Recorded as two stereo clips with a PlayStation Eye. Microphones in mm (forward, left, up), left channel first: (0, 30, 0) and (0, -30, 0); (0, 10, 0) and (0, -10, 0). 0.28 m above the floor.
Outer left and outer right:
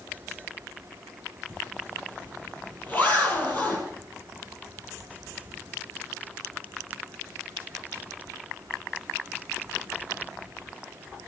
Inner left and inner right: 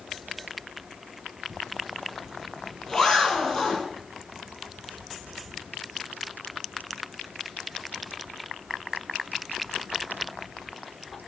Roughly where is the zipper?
Left.